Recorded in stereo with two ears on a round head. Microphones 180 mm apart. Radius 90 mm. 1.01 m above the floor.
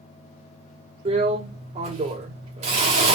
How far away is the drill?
About 1.4 m.